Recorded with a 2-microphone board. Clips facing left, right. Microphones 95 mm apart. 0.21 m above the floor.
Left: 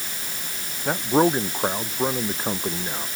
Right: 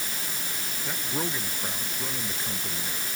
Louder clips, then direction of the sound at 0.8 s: Left 14 dB; 55° left (ahead or behind).